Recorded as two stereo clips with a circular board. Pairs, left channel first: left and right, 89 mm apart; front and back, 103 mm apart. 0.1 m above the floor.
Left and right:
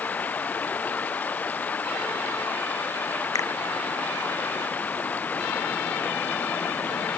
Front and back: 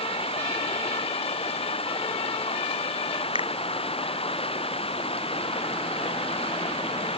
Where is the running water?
20° left.